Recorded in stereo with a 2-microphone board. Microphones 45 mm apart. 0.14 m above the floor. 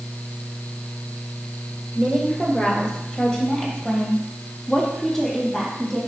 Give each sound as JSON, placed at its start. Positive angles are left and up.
{"t": 1.9, "sound": "a woman speaking", "side_deg": 25, "distance_m": 2.0}